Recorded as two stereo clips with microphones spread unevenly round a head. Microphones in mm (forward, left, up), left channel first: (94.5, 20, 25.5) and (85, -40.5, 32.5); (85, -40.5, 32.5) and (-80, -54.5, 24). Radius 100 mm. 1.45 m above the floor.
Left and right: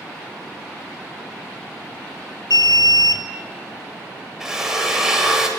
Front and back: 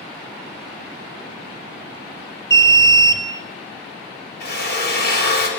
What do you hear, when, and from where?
2.5 s an alarm: 80° left, 3.5 m
4.4 s a drill: 15° right, 9 m